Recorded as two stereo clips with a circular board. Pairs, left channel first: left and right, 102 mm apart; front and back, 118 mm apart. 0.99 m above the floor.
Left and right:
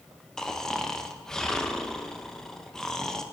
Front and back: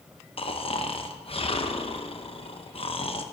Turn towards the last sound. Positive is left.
turn(degrees=10)